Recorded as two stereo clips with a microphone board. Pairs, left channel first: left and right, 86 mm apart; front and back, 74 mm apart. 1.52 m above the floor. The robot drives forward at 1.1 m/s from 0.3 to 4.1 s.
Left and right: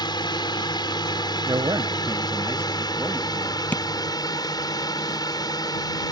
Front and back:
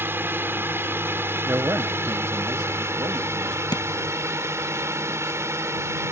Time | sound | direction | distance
0.0 | a drone | 120° left | ?
1.5 | a man speaking | 120° right | ?
3.7 | tapping | 15° left | ?